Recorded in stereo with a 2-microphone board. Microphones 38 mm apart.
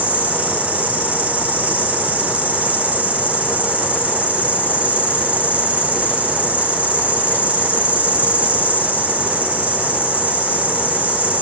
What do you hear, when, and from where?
0.0 s an insect: 35° right (ahead or behind), 5.5 m